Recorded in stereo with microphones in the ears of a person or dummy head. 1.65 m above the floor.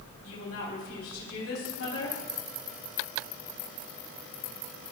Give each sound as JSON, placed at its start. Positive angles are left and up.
{"t": 0.2, "sound": "a woman speaking", "side_deg": 80, "distance_m": 4.0}